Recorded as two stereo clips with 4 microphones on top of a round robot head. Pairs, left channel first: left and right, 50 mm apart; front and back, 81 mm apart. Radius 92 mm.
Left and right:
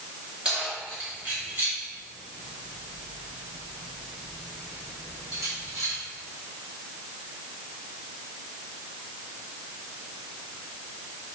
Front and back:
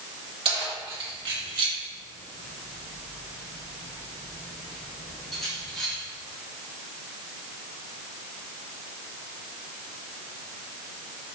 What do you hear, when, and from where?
0.5 s keys jangling: 165° right, 2.0 m; by 5.9 s 85° right, 3 m